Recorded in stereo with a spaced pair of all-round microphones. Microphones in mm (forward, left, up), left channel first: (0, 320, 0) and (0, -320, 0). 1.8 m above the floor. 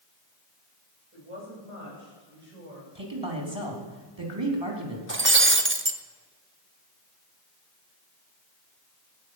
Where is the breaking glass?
20° right (ahead or behind), 0.9 m.